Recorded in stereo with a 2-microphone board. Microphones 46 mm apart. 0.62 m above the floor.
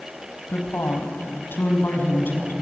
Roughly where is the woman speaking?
Left.